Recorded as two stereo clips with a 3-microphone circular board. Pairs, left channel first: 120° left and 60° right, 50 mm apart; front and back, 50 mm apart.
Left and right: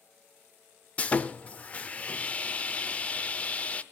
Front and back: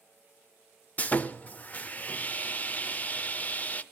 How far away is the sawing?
About 0.5 m.